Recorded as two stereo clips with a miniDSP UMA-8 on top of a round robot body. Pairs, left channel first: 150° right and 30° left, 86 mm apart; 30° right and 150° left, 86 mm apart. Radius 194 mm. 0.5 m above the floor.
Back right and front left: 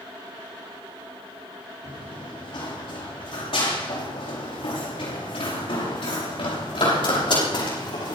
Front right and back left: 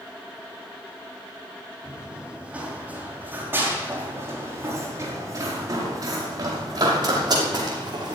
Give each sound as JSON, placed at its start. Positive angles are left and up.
{"t": 1.8, "sound": "running footsteps", "azimuth_deg": -130, "distance_m": 6.0}